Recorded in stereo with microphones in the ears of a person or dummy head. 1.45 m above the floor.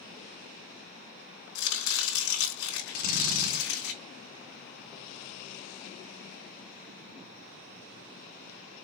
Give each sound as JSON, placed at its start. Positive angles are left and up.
{"t": 1.6, "sound": "chopping", "side_deg": 70, "distance_m": 4.0}
{"t": 2.9, "sound": "a drill", "side_deg": 45, "distance_m": 3.0}